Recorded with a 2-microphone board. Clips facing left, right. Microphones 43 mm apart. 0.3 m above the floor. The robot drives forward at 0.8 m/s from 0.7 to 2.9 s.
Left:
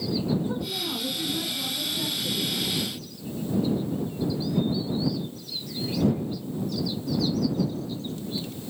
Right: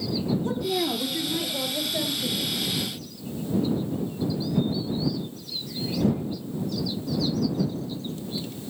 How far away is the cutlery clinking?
No cutlery clinking in this recording.